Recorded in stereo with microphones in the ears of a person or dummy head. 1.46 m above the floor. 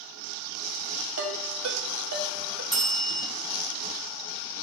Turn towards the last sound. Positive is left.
turn(degrees=5)  # may be behind; listen again after turning